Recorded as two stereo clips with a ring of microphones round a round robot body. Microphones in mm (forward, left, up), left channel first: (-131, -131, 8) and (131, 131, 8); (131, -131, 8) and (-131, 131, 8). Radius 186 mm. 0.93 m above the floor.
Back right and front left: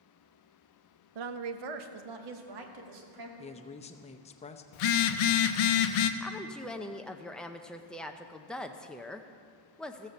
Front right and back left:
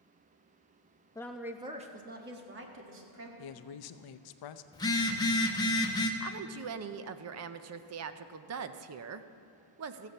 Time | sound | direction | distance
1.1 | a woman speaking | 35° left | 0.7 m
3.4 | a woman speaking | 65° right | 0.7 m
4.7 | a phone buzzing | 125° right | 0.8 m
6.2 | a woman speaking | 140° left | 0.6 m